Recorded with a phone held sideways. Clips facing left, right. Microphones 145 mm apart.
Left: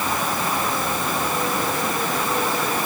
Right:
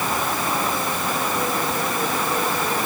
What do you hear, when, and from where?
Only background noise.